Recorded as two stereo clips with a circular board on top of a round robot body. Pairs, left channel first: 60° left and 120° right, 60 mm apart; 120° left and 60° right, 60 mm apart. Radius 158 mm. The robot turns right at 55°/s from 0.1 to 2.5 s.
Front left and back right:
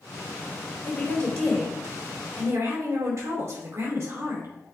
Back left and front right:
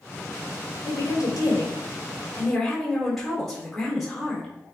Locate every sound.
0.8 s a woman speaking: 115° left, 3.5 m; by 4.5 s 155° right, 3.5 m